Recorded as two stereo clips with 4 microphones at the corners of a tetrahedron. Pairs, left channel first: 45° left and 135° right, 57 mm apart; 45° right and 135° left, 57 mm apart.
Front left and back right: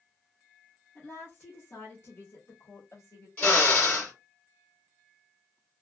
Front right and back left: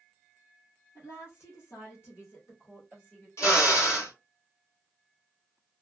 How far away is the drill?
About 2.5 m.